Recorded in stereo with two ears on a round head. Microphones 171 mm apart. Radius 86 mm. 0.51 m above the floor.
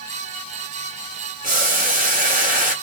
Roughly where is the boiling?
Right.